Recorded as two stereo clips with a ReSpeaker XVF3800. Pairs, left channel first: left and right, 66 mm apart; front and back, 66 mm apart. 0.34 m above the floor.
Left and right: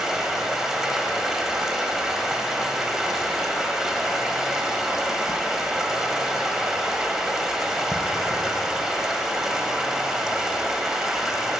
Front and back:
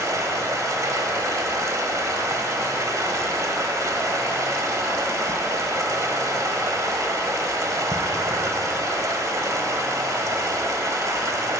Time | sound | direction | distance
0.0 | running water | 175° right | 1.3 m